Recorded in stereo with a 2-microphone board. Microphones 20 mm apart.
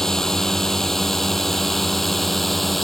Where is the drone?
25° left (ahead or behind); by 2.8 s 5° left (ahead or behind).